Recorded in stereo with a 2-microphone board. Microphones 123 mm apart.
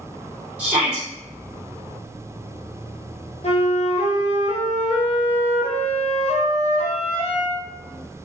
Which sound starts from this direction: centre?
A shout, at 0.6 s.